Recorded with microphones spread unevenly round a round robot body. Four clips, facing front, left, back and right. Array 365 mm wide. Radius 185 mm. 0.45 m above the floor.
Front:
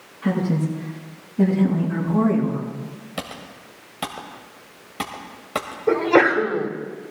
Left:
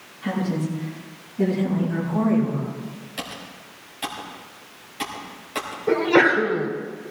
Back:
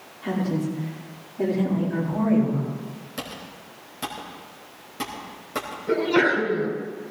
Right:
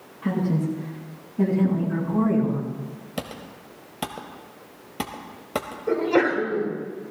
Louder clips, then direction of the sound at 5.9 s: Left 3 dB, front 4 dB; 20° left.